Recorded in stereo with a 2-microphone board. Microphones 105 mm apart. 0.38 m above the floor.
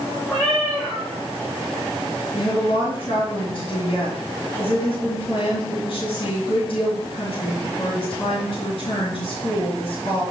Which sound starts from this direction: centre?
A cat meowing, at 0.3 s.